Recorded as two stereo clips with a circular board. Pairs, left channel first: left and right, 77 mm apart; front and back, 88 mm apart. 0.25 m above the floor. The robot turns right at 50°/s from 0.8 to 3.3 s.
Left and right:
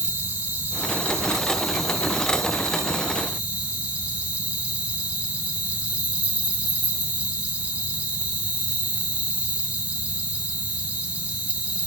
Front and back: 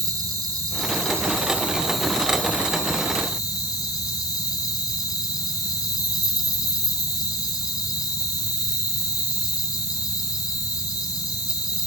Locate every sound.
0.0 s an insect: 150° right, 3 m; by 11.9 s 25° right, 3 m